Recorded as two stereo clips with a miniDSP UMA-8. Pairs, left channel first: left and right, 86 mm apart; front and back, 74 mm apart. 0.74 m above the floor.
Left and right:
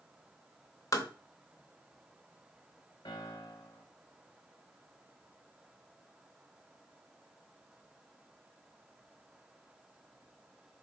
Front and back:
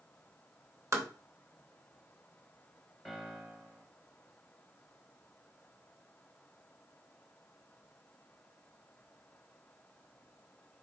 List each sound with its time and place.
0.9 s tapping: 140° left, 0.8 m
3.0 s a piano: 90° left, 0.9 m